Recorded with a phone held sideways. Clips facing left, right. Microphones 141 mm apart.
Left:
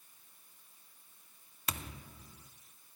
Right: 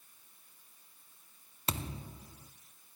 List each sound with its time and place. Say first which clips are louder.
1.7 s a thud: right 4 dB; 30° right (ahead or behind), 1.1 m